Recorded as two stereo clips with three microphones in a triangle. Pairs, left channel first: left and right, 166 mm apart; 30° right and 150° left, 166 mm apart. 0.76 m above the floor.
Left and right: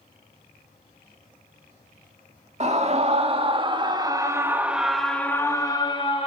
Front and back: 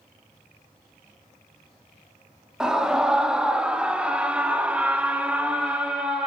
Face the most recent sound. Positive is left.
turn(degrees=70)